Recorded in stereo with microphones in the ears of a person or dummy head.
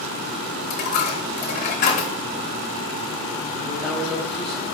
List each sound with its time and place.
0.7 s a dropped coin: 45° left (ahead or behind), 0.9 m
3.6 s a man speaking: centre (ahead or behind), 1.2 m